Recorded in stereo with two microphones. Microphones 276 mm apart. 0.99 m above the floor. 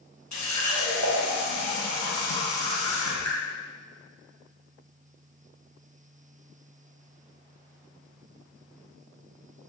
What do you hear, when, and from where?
0.3 s a running tap: 85° left, 1.0 m